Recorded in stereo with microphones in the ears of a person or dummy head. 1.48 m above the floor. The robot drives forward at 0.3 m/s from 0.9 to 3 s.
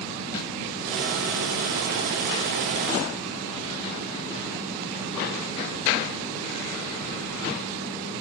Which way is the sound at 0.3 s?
30° left (ahead or behind).